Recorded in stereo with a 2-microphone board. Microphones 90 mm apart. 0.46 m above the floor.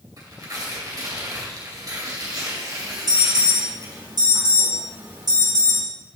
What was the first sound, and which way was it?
Tearing paper, 45° right (ahead or behind).